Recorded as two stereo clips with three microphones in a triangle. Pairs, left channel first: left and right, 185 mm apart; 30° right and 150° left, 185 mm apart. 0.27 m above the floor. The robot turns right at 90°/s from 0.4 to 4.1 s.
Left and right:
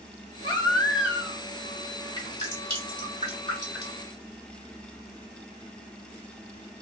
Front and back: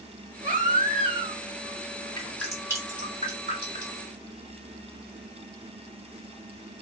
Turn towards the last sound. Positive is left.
turn(degrees=-160)